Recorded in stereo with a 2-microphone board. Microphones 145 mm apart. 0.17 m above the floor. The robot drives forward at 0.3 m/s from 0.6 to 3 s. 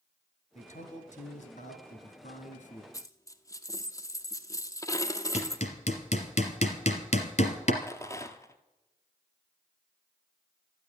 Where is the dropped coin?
25° left (ahead or behind), 0.9 m.